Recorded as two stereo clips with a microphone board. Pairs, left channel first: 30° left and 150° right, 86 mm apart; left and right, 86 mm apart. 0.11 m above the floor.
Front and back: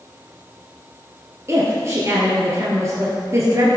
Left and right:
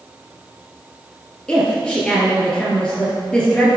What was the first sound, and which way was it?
A woman speaking, 165° left.